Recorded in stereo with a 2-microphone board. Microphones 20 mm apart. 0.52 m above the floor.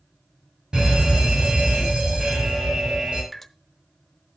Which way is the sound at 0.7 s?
55° right (ahead or behind).